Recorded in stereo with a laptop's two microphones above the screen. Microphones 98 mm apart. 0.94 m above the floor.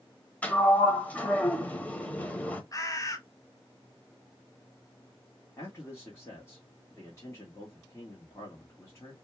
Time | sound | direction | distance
0.4 | a sliding door | 15° left (ahead or behind) | 0.9 m
2.7 | a bird | 35° left (ahead or behind) | 0.9 m
5.6 | a man speaking | 30° left (ahead or behind) | 1.6 m